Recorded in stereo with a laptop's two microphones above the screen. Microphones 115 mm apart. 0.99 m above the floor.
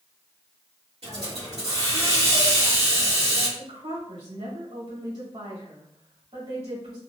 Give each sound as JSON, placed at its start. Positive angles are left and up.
{"t": 1.0, "sound": "a hiss", "side_deg": -65, "distance_m": 1.8}
{"t": 3.6, "sound": "a woman speaking", "side_deg": -75, "distance_m": 1.8}